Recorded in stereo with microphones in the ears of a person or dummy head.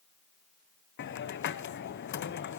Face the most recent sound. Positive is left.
turn(degrees=55)  # may be behind; listen again after turning